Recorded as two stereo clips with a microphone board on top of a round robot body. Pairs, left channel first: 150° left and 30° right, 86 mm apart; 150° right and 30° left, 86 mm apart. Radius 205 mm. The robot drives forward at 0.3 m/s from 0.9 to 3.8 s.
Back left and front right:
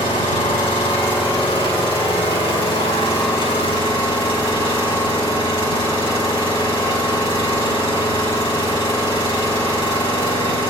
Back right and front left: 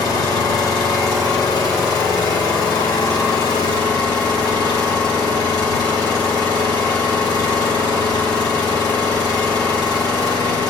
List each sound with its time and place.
0.0 s an engine running: 165° left, 3.5 m; by 10.7 s 170° left, 4.5 m